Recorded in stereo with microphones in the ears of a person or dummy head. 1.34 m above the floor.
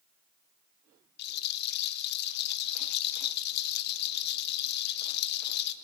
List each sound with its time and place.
1.2 s a rattle: 50° left (ahead or behind), 1.1 m